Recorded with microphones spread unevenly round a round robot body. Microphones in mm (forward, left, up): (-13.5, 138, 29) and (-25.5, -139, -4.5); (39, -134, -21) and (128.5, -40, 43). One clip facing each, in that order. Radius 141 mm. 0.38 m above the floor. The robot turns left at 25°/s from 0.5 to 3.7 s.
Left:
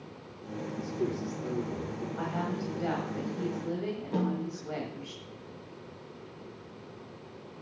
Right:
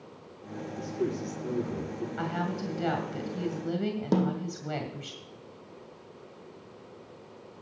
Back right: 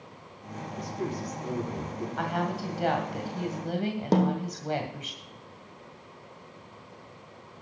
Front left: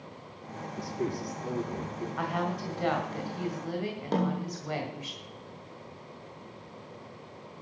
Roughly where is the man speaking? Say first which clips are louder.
Right 2 dB, front left 1 dB; ahead.